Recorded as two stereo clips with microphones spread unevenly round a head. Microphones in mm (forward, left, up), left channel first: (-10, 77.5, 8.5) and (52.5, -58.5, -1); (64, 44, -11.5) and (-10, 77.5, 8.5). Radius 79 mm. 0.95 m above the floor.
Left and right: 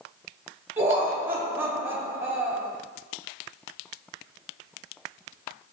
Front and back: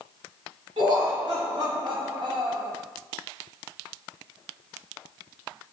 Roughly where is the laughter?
Behind right.